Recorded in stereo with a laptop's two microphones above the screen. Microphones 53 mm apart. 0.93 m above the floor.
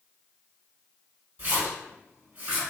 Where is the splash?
40° right (ahead or behind), 1.6 m.